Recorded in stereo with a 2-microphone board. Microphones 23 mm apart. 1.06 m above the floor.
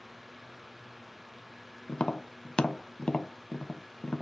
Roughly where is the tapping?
Left.